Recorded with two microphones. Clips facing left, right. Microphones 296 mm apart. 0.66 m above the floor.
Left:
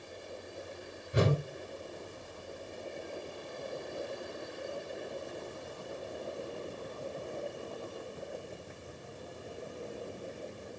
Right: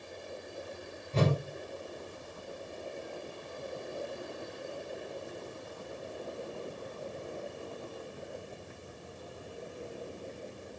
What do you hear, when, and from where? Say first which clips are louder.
1.1 s a whoosh: even; 15° left (ahead or behind), 0.8 m